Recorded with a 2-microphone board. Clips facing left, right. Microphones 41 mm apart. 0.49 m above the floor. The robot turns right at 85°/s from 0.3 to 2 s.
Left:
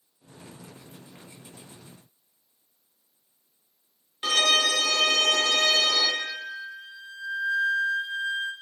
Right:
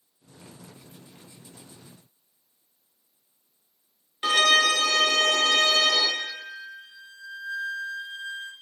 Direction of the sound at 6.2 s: 40° left (ahead or behind).